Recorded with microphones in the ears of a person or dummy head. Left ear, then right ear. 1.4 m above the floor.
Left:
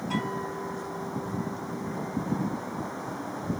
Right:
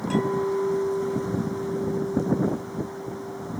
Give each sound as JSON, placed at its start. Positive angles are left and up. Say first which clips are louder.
{"t": 0.1, "sound": "a clink", "louder": "right 8 dB", "side_deg": -60, "distance_m": 3.0}